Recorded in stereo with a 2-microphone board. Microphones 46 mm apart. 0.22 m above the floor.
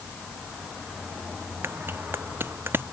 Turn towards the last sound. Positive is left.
turn(degrees=-55)  # may be behind; listen again after turning